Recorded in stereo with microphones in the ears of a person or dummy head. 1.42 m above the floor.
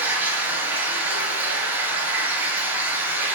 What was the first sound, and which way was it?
Running water, 20° right (ahead or behind).